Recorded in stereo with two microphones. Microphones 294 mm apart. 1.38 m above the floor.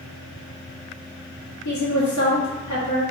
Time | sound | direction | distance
1.6 | a woman speaking | 70° left (ahead or behind) | 0.9 m